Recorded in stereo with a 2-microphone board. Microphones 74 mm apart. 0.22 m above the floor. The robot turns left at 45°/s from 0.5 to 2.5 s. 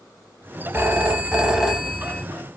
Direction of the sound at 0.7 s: 120° right.